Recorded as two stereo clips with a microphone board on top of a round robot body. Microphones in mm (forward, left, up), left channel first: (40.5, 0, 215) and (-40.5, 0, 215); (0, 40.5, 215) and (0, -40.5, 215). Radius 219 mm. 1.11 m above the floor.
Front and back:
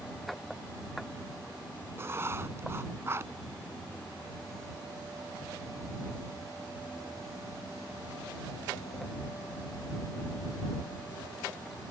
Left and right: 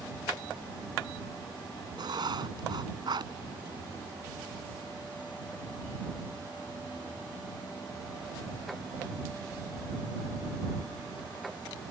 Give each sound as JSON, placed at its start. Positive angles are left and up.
{"t": 2.0, "sound": "writing", "azimuth_deg": -120}